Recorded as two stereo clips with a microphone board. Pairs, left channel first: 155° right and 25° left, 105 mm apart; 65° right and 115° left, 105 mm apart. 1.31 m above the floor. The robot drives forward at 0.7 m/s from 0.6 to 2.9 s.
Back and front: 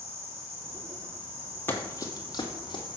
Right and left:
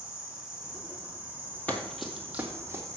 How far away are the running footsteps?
About 1.4 m.